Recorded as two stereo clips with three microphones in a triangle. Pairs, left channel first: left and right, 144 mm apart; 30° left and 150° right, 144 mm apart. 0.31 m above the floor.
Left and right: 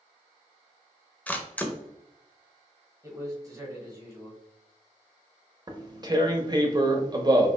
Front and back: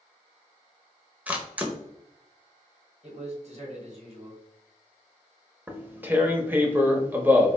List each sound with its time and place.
1.3 s a camera shutter: 155° left, 0.6 m
3.0 s a man speaking: 150° right, 1.4 m
5.7 s tearing paper: 90° right, 0.6 m